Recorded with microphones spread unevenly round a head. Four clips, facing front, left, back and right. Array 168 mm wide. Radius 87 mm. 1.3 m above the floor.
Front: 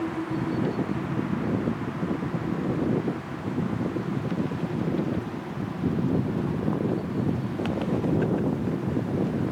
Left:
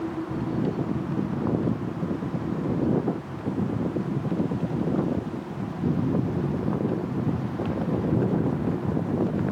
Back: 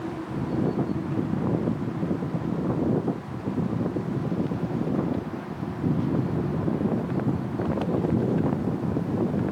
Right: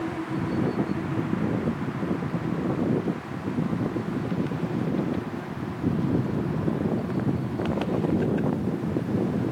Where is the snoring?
I don't hear snoring.